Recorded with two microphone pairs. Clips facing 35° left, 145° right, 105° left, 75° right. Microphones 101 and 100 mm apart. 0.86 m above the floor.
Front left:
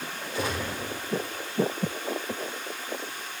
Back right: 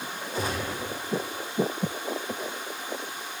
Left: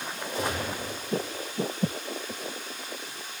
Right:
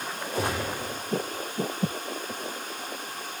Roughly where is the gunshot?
Right.